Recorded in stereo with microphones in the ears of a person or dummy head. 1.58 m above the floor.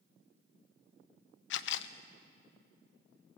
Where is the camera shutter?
70° left (ahead or behind), 0.6 m.